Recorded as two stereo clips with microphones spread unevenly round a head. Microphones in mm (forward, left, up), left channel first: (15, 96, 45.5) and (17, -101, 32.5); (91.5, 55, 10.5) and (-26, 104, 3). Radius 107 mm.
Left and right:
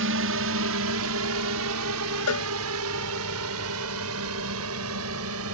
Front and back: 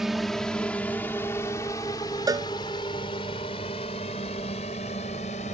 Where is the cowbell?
95° left.